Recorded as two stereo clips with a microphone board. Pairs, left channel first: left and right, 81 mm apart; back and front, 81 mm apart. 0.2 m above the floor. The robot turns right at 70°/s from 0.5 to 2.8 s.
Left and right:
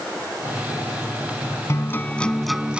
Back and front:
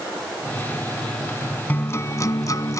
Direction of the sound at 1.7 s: 125° left.